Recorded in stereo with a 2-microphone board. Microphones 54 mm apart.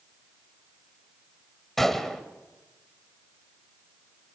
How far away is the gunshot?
About 1.9 m.